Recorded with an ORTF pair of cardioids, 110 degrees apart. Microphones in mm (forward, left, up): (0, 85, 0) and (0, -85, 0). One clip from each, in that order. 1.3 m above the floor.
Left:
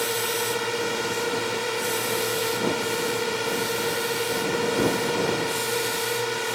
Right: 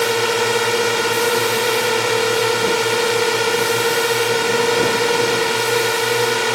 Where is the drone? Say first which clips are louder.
Right 9 dB; 55° right.